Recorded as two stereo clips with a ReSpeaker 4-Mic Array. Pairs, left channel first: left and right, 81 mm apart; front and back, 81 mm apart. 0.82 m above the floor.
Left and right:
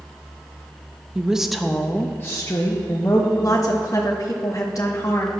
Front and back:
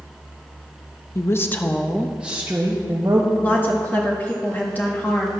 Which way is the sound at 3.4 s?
60° left.